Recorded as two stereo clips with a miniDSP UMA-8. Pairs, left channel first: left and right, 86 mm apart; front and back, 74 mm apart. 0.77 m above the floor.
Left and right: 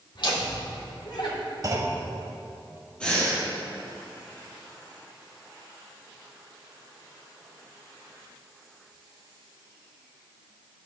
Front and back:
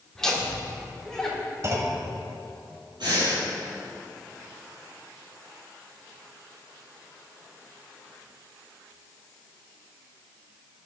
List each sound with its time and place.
0.1 s laughter: 80° left, 2.5 m
1.6 s a clunk: 135° right, 1.4 m
3.0 s breathing: 170° left, 3.5 m